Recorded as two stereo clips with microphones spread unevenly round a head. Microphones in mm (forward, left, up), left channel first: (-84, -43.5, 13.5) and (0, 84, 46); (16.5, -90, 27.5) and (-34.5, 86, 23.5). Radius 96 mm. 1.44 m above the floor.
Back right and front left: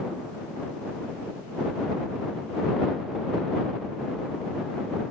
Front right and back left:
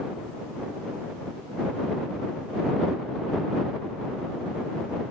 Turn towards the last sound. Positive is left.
No sound to turn to.